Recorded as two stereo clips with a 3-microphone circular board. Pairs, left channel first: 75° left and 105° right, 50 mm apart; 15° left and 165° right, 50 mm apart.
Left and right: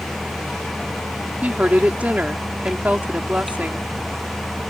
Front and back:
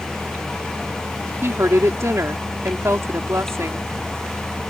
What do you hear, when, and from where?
1.4 s a woman speaking: 160° right